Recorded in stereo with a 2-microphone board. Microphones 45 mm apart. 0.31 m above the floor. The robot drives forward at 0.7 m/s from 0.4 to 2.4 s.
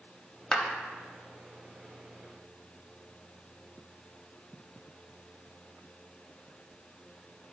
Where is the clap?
20° left (ahead or behind), 0.9 m; by 0.7 s 15° left (ahead or behind), 1.0 m.